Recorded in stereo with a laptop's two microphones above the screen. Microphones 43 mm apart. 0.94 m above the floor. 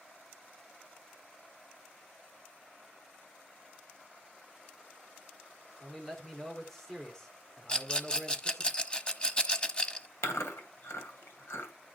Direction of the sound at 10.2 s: 85° left.